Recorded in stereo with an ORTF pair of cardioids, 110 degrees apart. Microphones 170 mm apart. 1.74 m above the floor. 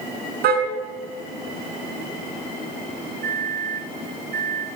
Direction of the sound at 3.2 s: 65° right.